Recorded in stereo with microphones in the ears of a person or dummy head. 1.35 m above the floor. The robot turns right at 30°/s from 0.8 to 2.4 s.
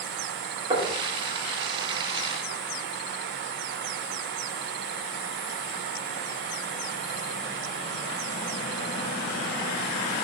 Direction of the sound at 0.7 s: 30° right (ahead or behind).